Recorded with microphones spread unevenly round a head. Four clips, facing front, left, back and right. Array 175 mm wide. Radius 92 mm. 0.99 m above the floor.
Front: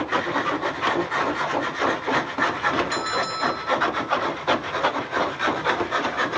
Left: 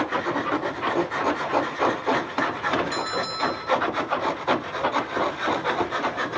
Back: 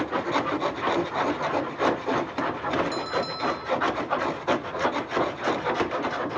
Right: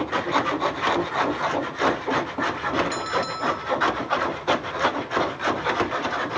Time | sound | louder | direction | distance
2.9 | a bell | right 1 dB, front 2 dB | 70° right | 5 m